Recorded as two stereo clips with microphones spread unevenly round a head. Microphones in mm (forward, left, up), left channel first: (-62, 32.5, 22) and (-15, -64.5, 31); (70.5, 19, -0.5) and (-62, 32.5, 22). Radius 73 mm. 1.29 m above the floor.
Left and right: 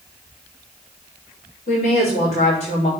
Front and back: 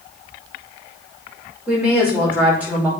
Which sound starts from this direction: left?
A woman speaking, at 1.7 s.